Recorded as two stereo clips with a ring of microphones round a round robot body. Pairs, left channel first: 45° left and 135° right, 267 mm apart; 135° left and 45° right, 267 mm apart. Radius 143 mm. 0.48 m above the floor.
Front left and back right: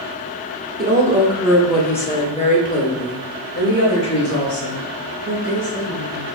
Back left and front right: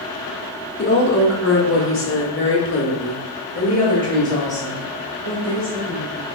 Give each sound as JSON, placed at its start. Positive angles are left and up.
{"t": 0.8, "sound": "a woman speaking", "azimuth_deg": 175, "distance_m": 1.3}